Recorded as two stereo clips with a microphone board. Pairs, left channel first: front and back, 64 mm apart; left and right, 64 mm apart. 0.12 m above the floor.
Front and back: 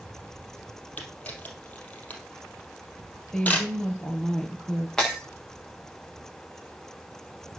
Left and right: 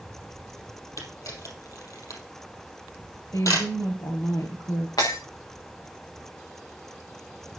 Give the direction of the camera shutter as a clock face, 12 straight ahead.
10 o'clock.